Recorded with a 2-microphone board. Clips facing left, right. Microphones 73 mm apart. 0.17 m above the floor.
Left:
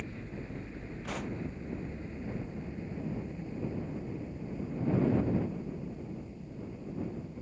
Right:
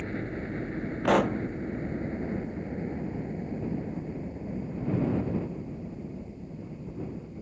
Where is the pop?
80° right.